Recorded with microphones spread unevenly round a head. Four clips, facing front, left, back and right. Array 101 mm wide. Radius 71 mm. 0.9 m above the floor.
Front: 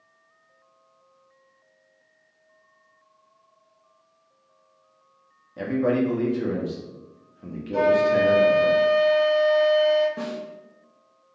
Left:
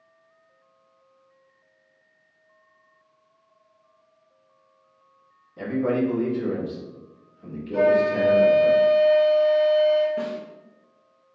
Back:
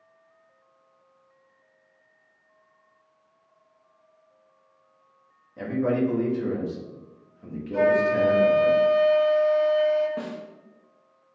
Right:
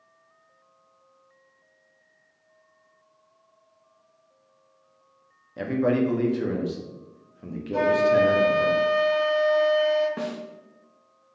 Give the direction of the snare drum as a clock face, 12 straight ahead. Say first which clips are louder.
Left 2 dB, front 2 dB; 3 o'clock.